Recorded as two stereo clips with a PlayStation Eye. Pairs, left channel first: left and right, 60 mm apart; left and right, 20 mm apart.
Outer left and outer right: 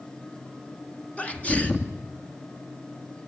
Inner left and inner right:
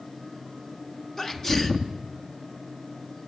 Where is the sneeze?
25° left (ahead or behind), 1.8 m.